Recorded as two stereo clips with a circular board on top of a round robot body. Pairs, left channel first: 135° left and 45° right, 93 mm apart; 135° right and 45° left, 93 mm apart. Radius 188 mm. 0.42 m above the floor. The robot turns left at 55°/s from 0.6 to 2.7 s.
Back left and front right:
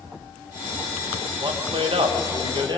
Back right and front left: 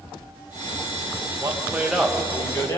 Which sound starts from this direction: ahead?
A man speaking, at 1.4 s.